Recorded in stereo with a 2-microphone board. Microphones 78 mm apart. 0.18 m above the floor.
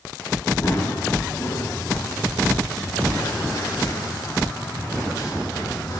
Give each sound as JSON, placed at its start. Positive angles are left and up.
{"t": 0.6, "sound": "running footsteps", "side_deg": 30, "distance_m": 7.5}